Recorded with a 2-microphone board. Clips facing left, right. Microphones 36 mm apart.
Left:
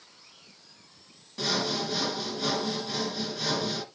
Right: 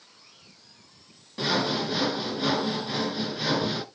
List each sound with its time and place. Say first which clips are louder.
1.4 s sawing: right 3 dB; 20° right (ahead or behind), 0.9 m